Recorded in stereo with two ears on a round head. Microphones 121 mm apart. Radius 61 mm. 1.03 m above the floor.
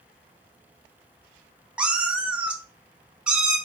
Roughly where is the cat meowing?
Centre.